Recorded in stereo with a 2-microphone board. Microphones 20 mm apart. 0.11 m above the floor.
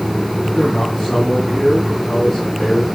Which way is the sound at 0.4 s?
25° left (ahead or behind).